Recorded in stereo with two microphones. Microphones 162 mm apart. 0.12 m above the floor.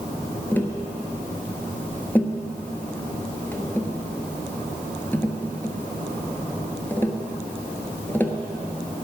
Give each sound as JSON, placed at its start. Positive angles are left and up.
{"t": 0.5, "sound": "tapping", "side_deg": 10, "distance_m": 1.3}